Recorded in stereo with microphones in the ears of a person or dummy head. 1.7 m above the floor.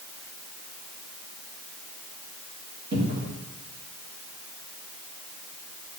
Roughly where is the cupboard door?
Right.